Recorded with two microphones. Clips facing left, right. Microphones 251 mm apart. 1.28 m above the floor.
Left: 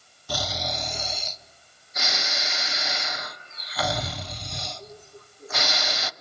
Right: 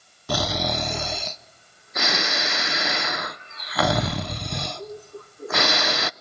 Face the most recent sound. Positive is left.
turn(degrees=-65)  # may be behind; listen again after turning